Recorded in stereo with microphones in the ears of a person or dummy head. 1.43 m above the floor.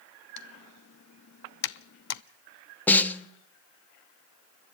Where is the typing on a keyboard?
65° left (ahead or behind), 0.6 m.